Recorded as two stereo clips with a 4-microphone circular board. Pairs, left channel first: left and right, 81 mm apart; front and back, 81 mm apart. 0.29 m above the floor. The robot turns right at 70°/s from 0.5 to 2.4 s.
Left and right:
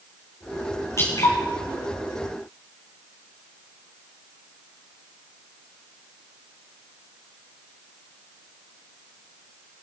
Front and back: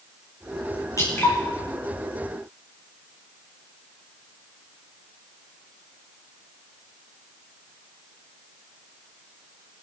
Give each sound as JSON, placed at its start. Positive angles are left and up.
{"t": 1.0, "sound": "dripping", "azimuth_deg": 40, "distance_m": 6.5}